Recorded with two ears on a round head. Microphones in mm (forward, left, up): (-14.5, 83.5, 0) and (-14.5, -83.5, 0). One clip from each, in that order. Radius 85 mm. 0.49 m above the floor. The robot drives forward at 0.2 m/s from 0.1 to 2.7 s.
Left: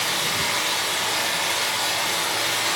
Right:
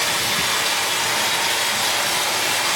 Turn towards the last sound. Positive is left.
turn(degrees=-65)  # may be behind; listen again after turning